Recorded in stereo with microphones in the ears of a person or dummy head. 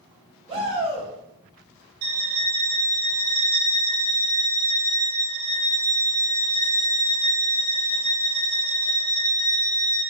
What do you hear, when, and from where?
0.5 s a shout: 25° right (ahead or behind), 2.0 m
2.0 s a violin: 45° right (ahead or behind), 1.6 m